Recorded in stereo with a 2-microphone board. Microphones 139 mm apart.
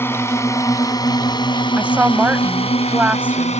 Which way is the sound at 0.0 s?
15° left (ahead or behind).